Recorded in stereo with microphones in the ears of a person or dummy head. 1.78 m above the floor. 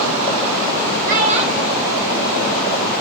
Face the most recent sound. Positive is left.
turn(degrees=5)  # may be behind; listen again after turning